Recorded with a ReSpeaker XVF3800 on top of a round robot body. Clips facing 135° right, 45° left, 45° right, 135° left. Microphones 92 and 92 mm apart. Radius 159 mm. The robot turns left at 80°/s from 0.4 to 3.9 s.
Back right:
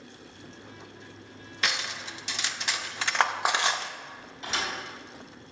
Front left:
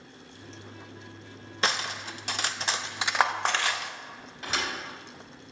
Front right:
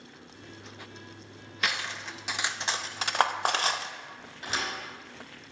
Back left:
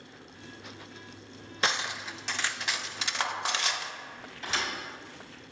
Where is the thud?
5° left, 3 m.